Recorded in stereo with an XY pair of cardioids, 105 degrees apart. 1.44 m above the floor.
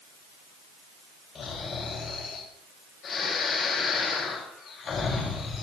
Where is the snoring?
55° left, 6 m.